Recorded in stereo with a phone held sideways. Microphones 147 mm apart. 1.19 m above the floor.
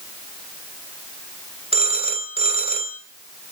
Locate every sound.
1.7 s a phone ringing: 45° right (ahead or behind), 3.5 m